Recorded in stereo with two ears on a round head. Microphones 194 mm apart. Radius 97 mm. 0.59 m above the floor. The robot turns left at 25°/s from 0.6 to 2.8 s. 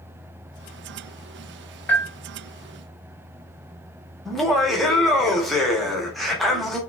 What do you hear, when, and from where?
1.9 s a bell: 10° left (ahead or behind), 0.7 m; by 2.1 s 15° left (ahead or behind), 0.7 m
4.2 s laughter: centre (ahead or behind), 0.7 m